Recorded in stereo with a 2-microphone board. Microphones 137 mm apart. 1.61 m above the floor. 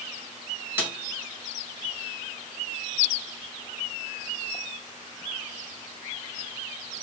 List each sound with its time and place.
0.8 s a snare drum: 15° right (ahead or behind), 2.5 m